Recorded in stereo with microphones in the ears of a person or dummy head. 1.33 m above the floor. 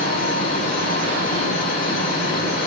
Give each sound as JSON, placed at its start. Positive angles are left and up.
{"t": 0.0, "sound": "a fan", "side_deg": 55, "distance_m": 2.0}